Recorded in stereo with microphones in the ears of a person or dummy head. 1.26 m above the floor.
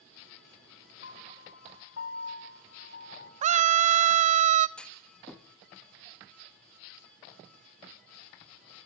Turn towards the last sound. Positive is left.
turn(degrees=5)  # may be behind; listen again after turning